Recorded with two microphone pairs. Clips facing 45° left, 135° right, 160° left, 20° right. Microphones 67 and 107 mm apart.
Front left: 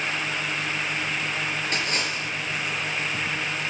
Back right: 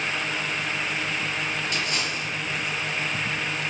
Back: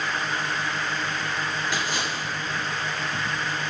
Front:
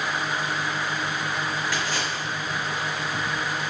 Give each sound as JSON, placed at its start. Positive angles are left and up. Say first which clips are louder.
{"t": 1.7, "sound": "a splash", "louder": "front left 1 dB, even", "azimuth_deg": 90, "distance_m": 5.0}